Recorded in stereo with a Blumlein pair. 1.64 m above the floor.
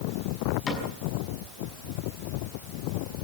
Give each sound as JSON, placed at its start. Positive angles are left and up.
{"t": 0.7, "sound": "a cupboard door", "azimuth_deg": 25, "distance_m": 5.5}